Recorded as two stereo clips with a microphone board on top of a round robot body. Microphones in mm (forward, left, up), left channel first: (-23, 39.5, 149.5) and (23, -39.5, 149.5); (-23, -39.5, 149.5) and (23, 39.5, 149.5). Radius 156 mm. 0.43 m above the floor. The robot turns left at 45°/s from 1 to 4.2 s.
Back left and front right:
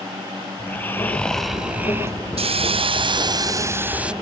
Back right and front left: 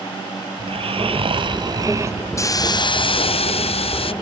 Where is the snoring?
50° left; by 2.3 s 5° right.